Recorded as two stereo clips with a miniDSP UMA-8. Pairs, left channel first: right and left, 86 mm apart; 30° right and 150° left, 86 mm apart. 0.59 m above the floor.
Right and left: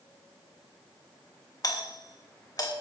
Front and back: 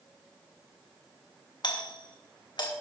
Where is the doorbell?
50° right, 2.5 m.